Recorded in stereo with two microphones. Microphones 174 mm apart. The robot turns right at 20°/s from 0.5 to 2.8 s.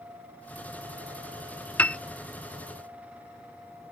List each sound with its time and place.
1.8 s a piano: 10° left (ahead or behind); by 2.0 s 5° left (ahead or behind)